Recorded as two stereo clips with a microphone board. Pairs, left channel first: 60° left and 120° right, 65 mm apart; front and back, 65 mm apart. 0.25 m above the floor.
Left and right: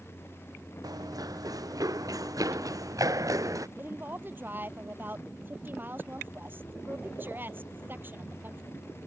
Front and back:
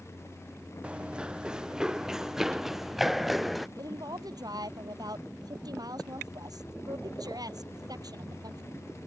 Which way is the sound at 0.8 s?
105° right.